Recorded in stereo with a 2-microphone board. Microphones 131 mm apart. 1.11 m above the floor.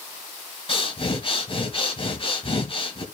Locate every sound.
0.7 s breathing: 45° left (ahead or behind), 1.7 m